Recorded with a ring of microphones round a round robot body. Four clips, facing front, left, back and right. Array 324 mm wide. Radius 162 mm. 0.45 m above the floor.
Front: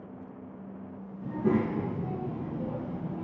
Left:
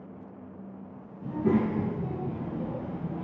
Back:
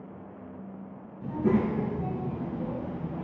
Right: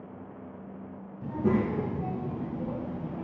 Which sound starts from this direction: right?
A child speaking, at 1.2 s.